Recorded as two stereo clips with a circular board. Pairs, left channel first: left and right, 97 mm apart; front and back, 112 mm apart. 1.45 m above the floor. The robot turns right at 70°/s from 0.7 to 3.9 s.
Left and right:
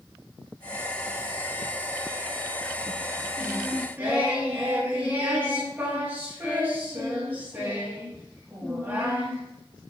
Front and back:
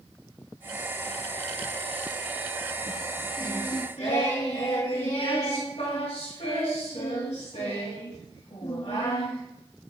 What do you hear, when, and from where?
3.4 s singing: 60° right, 3.5 m; by 9.4 s 20° right, 3.5 m